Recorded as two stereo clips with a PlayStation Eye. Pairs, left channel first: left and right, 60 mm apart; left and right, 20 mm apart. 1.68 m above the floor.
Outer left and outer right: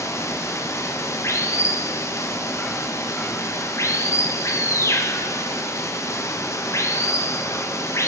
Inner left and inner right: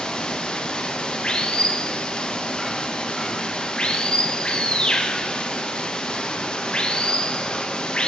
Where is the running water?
55° left (ahead or behind), 1.3 m.